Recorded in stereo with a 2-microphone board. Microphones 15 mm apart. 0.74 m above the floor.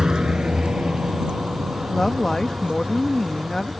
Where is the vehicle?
55° right (ahead or behind); by 3.8 s 80° right.